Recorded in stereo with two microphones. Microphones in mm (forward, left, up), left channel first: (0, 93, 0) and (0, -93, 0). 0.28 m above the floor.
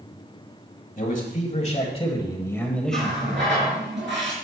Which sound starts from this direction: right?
A running tap, at 2.9 s.